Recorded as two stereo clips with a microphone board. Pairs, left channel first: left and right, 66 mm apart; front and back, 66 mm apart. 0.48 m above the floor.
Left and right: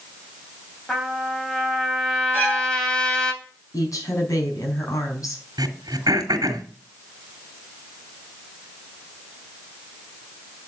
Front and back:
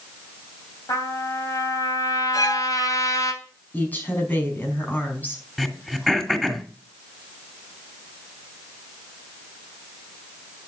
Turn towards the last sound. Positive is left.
turn(degrees=-90)